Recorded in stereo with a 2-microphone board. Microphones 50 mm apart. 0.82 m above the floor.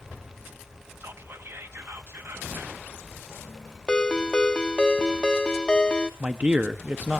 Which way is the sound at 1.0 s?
55° right (ahead or behind).